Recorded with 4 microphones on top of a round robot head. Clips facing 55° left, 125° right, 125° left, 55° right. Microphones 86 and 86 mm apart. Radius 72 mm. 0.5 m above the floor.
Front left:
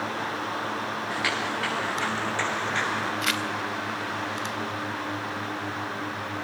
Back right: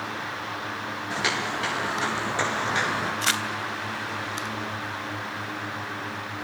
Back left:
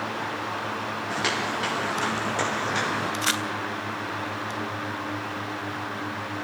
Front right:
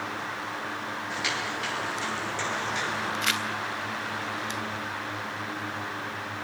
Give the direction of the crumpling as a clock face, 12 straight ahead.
6 o'clock.